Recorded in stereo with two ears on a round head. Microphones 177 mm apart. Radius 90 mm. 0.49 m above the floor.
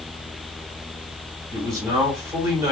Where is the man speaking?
15° right (ahead or behind), 1.2 m.